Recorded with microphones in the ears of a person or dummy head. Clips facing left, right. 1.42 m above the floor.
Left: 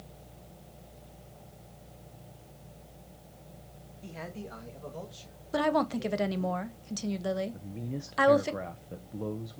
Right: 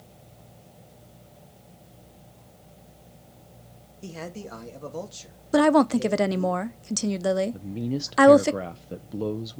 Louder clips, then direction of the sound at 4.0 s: Right 5 dB; 50° right (ahead or behind).